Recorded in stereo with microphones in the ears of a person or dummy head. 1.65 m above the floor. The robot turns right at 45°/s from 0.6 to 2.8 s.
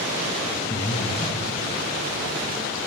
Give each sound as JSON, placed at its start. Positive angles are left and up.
{"t": 0.7, "sound": "breathing", "side_deg": 20, "distance_m": 1.1}